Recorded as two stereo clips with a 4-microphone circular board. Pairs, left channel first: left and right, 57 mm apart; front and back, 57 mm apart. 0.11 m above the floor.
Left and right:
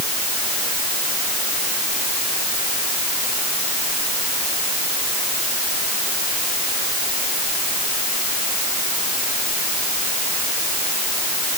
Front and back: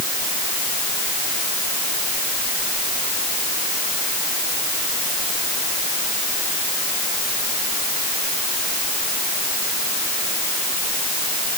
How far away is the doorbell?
No doorbell in this recording.